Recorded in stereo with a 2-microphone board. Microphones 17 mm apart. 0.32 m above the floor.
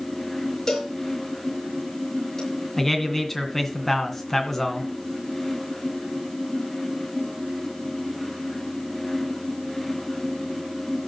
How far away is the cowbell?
About 7 m.